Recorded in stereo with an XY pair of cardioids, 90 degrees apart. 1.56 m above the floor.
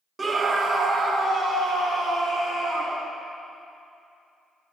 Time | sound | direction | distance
0.2 | a scream | 35° right | 0.7 m